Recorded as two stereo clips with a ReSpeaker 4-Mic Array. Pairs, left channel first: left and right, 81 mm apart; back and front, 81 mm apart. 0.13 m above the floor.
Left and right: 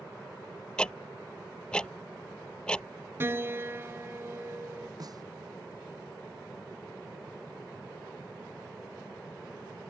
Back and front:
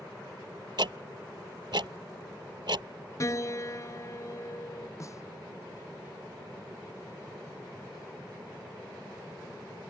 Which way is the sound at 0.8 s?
10° left.